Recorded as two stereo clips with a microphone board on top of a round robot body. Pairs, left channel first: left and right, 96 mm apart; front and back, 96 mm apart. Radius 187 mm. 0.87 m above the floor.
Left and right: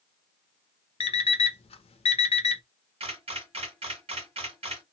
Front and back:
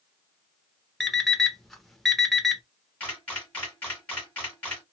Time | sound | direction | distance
1.0 | an alarm clock | 90° left | 0.5 m
3.0 | a camera shutter | 75° right | 1.6 m